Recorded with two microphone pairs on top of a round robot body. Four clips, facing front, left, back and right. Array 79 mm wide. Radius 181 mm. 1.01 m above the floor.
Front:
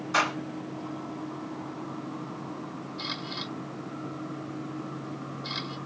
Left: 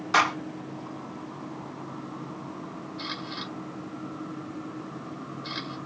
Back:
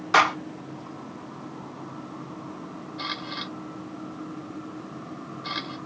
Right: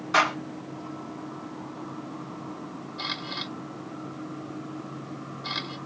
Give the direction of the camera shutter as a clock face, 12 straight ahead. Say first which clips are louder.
Right 2 dB, back 5 dB; 5 o'clock.